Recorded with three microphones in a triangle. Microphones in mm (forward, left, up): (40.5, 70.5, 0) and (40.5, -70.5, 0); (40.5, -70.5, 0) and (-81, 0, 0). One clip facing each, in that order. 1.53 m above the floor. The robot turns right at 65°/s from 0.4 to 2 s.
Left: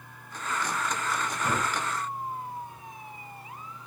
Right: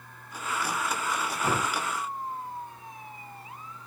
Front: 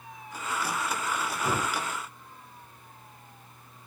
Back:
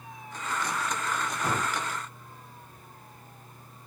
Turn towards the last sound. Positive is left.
turn(degrees=-115)